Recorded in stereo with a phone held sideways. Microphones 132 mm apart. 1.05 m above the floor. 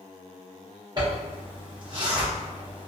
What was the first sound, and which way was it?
A zipper, 35° right (ahead or behind).